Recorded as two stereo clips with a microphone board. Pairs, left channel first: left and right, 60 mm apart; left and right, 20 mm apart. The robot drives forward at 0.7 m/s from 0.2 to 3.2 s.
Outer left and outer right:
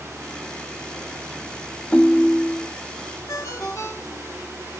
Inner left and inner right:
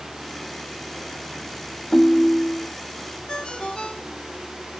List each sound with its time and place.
1.9 s a ringtone: 25° left (ahead or behind), 0.7 m
3.3 s a ringtone: 70° left (ahead or behind), 2 m